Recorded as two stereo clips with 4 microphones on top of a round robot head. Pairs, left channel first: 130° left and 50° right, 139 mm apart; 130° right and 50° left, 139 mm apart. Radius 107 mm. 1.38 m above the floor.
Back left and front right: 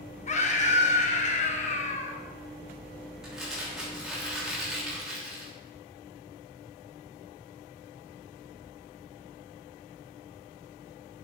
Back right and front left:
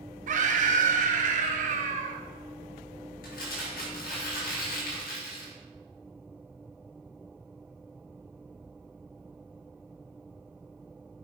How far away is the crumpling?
About 7 m.